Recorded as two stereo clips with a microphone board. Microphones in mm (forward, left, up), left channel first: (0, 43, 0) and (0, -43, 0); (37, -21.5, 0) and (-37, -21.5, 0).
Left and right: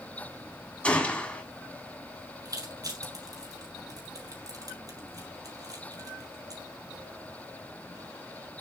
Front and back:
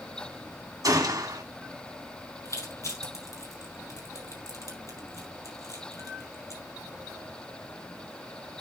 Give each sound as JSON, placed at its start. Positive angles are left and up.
{"t": 0.8, "sound": "a gunshot", "azimuth_deg": 160, "distance_m": 1.7}
{"t": 2.5, "sound": "crushing", "azimuth_deg": -45, "distance_m": 5.0}